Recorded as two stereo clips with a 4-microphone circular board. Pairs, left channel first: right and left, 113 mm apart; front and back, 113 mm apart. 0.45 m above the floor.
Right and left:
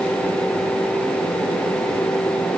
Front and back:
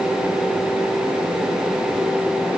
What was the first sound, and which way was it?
Only background noise.